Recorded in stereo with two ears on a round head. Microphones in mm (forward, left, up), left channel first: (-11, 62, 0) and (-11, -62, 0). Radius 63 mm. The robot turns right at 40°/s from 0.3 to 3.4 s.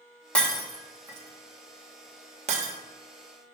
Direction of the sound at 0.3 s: 10° left (ahead or behind).